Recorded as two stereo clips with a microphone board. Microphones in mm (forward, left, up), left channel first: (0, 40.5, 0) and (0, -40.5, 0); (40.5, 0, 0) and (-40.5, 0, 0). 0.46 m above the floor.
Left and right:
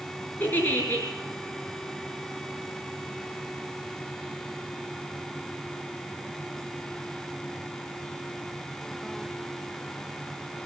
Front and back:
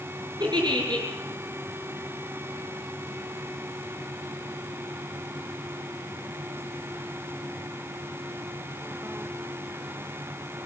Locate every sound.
0.4 s a giggle: 155° left, 5.5 m